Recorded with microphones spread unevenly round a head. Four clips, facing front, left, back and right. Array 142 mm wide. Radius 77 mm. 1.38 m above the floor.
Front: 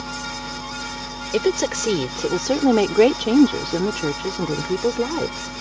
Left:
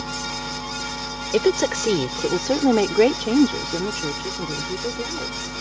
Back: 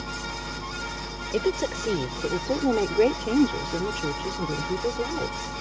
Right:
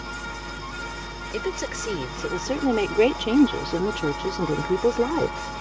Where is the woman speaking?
45° left; by 5.6 s 40° right.